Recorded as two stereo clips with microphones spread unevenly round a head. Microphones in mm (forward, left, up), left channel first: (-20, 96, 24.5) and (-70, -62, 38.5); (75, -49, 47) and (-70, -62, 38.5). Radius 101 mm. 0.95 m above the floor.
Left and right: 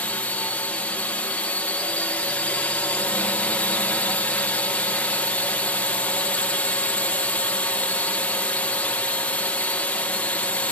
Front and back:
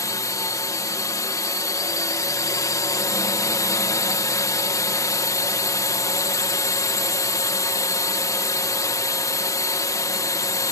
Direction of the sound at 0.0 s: 20° left.